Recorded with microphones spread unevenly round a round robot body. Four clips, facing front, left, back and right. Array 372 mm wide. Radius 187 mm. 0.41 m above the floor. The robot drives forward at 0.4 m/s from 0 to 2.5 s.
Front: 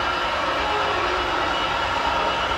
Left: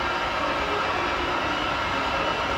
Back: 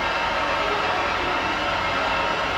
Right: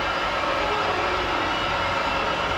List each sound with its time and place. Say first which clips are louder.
0.0 s an engine running: right 1 dB, even; 5° left, 1.3 m; by 2.6 s 30° left, 0.6 m